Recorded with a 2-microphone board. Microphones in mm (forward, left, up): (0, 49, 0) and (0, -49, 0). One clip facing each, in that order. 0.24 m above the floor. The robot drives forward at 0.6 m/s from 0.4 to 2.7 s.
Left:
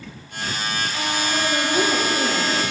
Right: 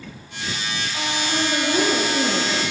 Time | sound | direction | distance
1.3 | a woman speaking | 50° right (ahead or behind) | 4.5 m